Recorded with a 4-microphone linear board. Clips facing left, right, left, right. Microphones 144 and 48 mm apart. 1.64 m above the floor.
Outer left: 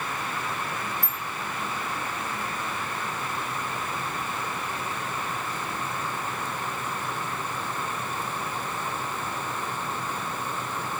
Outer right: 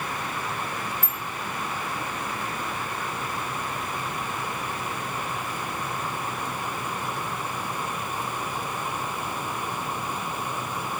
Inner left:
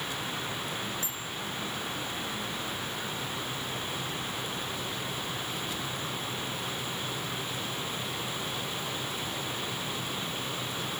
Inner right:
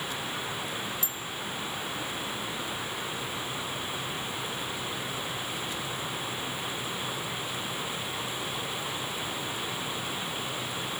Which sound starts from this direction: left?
A bicycle bell, at 1.0 s.